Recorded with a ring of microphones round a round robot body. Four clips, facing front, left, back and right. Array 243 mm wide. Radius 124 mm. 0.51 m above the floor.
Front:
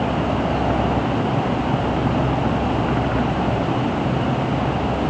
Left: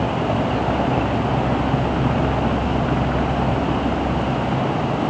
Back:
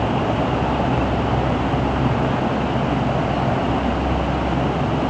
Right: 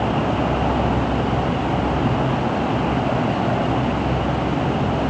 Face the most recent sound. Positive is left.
No sound to turn to.